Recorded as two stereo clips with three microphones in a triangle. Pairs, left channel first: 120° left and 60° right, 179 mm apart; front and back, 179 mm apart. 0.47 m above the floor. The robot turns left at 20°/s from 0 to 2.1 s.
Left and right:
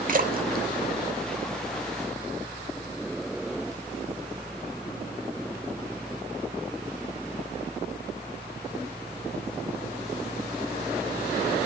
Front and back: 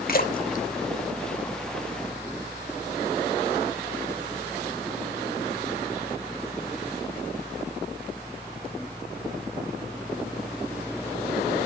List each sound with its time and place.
0.1 s a splash: 25° right, 1.0 m; by 2.0 s 65° right, 1.0 m